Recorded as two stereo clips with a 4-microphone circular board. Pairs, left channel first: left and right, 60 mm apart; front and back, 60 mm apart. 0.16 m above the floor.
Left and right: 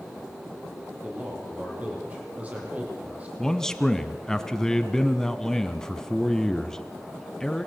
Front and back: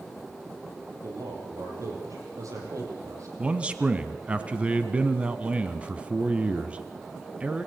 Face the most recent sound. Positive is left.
turn(degrees=155)